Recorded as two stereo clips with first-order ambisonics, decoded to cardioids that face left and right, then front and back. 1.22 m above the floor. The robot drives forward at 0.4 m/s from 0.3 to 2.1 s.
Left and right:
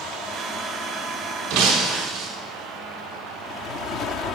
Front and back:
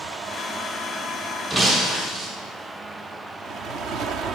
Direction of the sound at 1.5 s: 100° right.